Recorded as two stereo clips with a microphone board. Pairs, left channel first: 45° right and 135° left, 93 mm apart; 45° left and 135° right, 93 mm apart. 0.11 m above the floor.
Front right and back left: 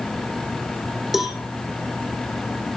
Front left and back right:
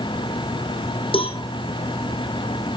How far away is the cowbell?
About 1.9 m.